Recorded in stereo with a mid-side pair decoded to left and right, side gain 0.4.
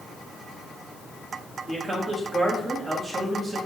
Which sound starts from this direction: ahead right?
A man speaking, at 1.7 s.